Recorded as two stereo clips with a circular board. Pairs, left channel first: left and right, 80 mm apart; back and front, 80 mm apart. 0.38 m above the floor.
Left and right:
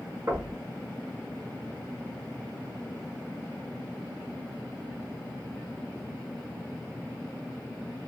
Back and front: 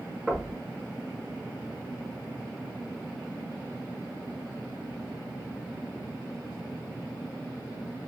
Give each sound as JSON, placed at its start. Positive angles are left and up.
{"t": 0.3, "sound": "knocking", "azimuth_deg": -75, "distance_m": 1.3}